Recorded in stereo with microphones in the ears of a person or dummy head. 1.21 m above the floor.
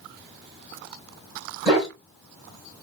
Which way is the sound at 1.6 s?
5° right (ahead or behind).